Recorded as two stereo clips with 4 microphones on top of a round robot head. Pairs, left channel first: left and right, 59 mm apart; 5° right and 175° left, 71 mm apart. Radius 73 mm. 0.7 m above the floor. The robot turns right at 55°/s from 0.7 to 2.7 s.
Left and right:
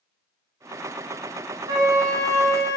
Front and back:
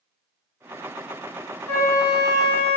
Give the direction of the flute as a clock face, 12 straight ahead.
3 o'clock.